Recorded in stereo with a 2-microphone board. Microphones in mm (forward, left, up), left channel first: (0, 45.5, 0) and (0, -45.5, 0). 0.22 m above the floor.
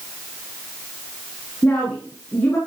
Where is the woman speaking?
20° left (ahead or behind), 7 m.